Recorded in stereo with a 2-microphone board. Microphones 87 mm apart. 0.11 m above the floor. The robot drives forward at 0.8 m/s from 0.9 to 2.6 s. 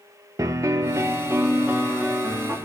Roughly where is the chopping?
No chopping in this recording.